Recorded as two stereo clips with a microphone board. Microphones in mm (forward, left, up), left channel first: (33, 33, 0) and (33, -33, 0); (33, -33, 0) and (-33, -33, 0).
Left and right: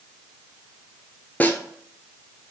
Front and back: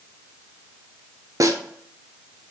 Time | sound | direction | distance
1.4 | a snare drum | 155° left | 0.6 m